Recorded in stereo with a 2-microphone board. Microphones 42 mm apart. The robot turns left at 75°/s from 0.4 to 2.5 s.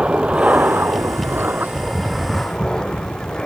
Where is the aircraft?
30° right (ahead or behind); by 3.5 s 20° left (ahead or behind).